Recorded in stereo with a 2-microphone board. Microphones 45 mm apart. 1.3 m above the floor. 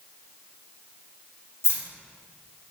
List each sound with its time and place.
1.6 s keys jangling: 60° left (ahead or behind), 0.7 m